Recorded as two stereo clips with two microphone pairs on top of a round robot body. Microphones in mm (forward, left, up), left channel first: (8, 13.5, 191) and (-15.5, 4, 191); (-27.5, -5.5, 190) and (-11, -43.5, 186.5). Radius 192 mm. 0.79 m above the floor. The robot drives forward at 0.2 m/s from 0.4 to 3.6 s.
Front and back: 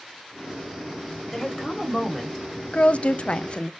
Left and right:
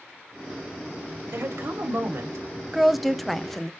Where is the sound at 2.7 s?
15° left, 0.6 m; by 3.7 s 25° left, 0.6 m.